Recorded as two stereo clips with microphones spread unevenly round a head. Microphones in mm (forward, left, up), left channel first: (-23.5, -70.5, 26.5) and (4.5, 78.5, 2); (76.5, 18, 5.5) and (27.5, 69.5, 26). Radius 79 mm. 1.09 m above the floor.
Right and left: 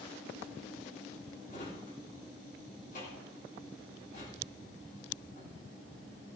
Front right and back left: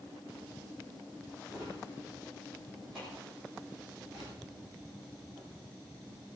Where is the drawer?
140° right, 9 m.